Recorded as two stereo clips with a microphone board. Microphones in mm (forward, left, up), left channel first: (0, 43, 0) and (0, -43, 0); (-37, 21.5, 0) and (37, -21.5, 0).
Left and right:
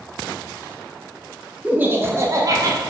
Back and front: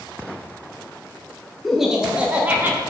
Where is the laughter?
120° right, 1.0 m; by 2.8 s 85° right, 1.4 m.